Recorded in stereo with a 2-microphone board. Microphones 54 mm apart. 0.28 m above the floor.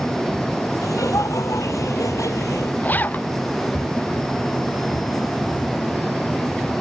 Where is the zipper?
30° left (ahead or behind).